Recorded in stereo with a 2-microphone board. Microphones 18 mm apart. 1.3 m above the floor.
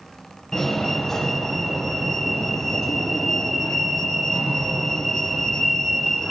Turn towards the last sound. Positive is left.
turn(degrees=25)  # may be behind; listen again after turning